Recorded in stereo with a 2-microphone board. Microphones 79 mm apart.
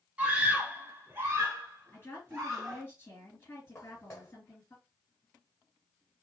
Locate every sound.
0.2 s a scream: 15° right (ahead or behind), 1.2 m; by 2.8 s 35° right (ahead or behind), 1.8 m
1.9 s a woman speaking: 30° left (ahead or behind), 3 m
3.8 s footsteps: 35° left (ahead or behind), 1.3 m